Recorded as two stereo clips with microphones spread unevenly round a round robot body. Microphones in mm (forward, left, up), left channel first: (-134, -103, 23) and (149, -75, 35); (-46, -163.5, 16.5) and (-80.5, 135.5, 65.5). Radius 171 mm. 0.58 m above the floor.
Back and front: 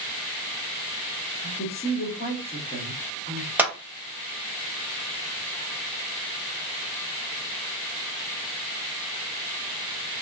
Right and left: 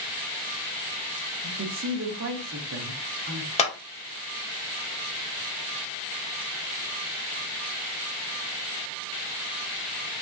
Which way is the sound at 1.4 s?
130° left.